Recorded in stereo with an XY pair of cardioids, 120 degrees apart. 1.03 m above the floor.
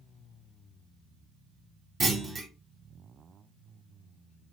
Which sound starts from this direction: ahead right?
A clunk, at 2.0 s.